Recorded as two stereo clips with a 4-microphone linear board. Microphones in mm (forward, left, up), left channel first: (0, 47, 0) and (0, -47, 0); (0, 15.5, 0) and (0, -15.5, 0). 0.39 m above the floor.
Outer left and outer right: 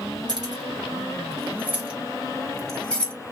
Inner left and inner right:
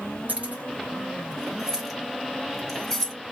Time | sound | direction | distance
0.3 | keys jangling | 50° right (ahead or behind) | 1.3 m